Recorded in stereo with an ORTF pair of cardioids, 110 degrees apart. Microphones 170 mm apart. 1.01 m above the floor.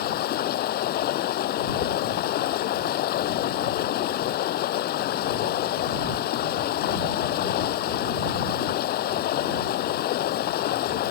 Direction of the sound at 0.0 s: 70° left.